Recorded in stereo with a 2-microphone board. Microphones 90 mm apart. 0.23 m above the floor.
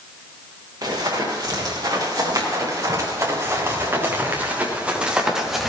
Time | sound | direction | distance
0.8 | running footsteps | 50° right (ahead or behind) | 7 m